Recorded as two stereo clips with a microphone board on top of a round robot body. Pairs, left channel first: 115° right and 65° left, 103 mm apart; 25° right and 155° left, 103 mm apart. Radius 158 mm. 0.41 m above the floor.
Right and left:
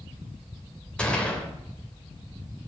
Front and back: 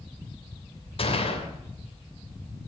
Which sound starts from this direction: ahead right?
A gunshot, at 1.0 s.